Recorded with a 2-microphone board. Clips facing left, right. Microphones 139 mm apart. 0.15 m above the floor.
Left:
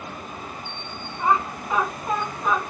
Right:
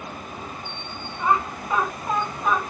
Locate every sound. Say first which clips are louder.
1.2 s laughter: left 1 dB; 25° left (ahead or behind), 1.4 m; by 2.6 s 10° right (ahead or behind), 1.4 m